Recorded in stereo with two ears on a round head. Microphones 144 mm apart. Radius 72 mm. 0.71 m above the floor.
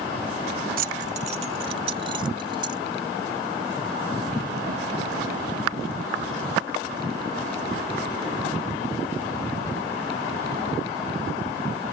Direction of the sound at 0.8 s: 55° right (ahead or behind).